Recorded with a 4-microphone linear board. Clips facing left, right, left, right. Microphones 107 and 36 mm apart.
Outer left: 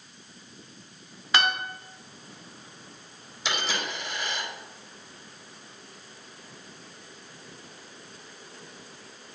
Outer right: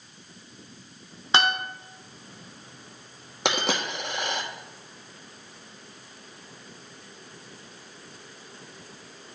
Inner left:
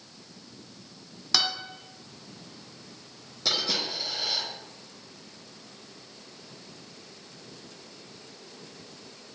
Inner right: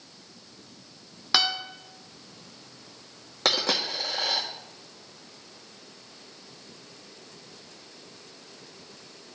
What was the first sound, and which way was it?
A guitar, 30° right (ahead or behind).